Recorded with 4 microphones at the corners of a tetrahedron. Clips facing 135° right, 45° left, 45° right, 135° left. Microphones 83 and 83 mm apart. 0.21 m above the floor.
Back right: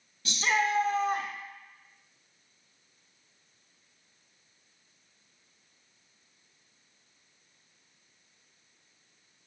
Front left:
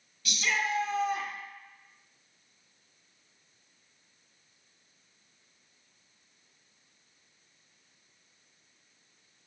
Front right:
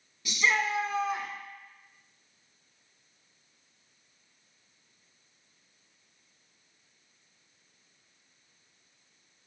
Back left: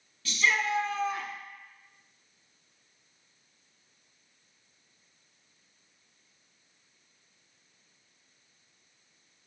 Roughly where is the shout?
Right.